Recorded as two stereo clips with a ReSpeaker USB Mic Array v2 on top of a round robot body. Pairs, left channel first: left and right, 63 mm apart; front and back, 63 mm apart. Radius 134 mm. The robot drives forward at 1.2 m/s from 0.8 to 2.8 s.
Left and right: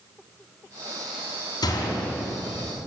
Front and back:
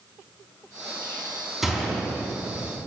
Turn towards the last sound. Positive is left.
turn(degrees=115)